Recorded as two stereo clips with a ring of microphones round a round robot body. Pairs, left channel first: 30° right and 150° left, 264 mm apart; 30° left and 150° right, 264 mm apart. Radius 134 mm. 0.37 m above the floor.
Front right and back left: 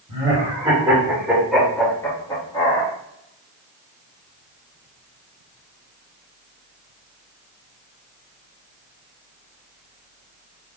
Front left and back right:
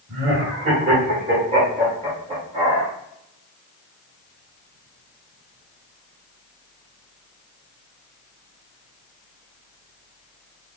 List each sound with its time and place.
0.1 s laughter: 170° right, 1.7 m; by 2.9 s 75° right, 1.7 m